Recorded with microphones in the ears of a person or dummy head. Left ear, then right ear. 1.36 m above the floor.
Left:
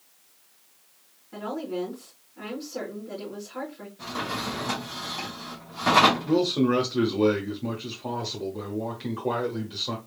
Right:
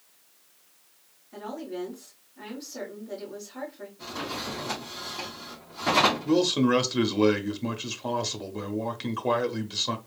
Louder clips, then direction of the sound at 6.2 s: Even; 45° right (ahead or behind).